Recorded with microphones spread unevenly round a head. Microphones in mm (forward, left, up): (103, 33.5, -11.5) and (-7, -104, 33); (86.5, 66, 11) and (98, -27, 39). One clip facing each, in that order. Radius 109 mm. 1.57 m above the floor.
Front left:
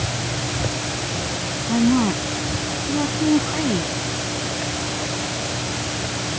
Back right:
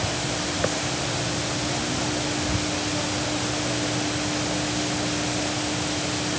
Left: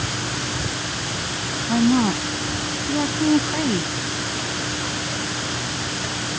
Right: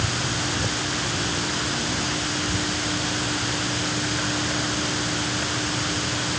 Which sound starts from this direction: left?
A woman speaking, at 1.7 s.